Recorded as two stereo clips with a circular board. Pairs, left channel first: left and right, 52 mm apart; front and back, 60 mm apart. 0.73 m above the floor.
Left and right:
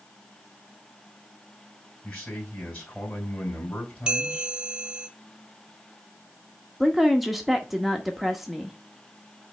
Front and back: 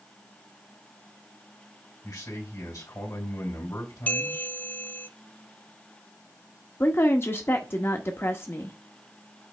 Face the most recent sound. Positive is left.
turn(degrees=-5)